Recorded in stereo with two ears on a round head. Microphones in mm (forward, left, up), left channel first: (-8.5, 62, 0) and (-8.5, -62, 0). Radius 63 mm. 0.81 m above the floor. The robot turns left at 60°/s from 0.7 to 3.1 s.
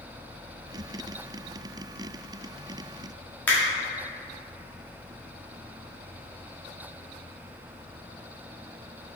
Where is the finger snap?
15° left (ahead or behind), 1.0 m.